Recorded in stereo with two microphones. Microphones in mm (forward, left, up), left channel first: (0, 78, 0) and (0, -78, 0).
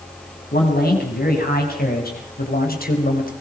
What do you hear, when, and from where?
0.5 s a man speaking: 80° left, 7 m; by 3.3 s 70° left (ahead or behind), 4 m